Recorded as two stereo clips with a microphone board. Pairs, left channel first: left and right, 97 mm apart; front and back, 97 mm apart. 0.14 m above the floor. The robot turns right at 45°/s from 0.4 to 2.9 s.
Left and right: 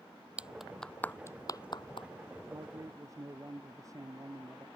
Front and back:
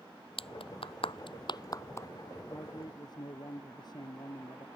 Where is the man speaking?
55° right; by 4.7 s 35° right.